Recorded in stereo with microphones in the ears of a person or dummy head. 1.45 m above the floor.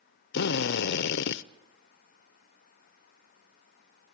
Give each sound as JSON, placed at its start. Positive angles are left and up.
{"t": 0.3, "sound": "a drill", "side_deg": 70, "distance_m": 0.7}